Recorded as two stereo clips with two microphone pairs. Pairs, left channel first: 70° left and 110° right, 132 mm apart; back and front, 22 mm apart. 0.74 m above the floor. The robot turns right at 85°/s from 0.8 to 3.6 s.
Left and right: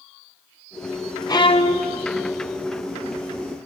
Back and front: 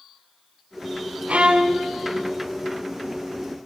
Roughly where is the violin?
Ahead.